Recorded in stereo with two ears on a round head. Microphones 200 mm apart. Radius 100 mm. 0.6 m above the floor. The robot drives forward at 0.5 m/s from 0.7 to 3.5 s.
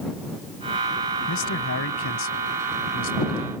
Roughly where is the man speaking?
Left.